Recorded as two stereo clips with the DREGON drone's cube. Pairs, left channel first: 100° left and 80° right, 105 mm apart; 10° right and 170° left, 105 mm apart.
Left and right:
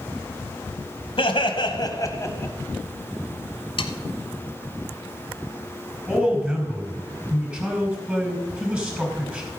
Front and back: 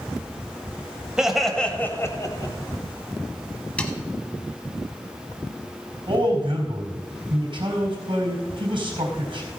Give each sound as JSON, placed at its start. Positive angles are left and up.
{"t": 1.2, "sound": "laughter", "azimuth_deg": 85, "distance_m": 1.6}
{"t": 3.8, "sound": "sawing", "azimuth_deg": 65, "distance_m": 0.9}
{"t": 6.1, "sound": "a man speaking", "azimuth_deg": -155, "distance_m": 4.0}